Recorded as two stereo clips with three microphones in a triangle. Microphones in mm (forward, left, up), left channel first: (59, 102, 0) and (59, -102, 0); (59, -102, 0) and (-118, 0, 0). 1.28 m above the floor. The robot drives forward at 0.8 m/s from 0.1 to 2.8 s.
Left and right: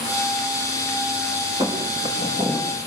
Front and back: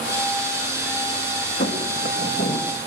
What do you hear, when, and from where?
1.6 s footsteps: 20° right, 6 m; by 2.7 s 30° right, 6.5 m